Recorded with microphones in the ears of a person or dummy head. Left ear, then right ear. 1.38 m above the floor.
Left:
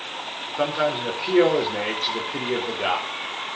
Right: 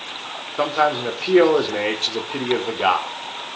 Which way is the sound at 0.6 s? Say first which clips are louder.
Right 4 dB; 30° right (ahead or behind).